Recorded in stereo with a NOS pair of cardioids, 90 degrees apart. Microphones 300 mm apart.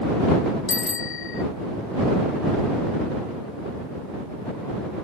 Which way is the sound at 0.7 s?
45° left.